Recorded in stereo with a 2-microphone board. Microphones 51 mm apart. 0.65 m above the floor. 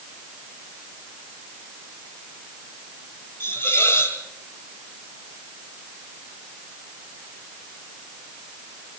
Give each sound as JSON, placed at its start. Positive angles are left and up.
{"t": 3.4, "sound": "a hiss", "side_deg": 50, "distance_m": 5.5}